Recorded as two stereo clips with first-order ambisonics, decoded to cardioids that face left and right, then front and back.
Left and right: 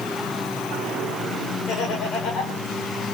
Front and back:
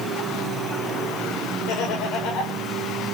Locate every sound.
1.7 s laughter: 35° left, 4 m